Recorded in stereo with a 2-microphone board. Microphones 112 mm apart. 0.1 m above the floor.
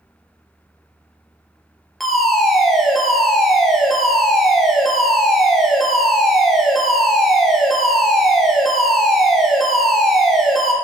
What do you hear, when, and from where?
2.0 s a fire alarm: centre (ahead or behind), 3 m